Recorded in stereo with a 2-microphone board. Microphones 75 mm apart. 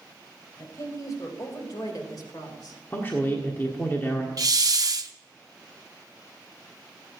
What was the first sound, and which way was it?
A woman speaking, 50° left (ahead or behind).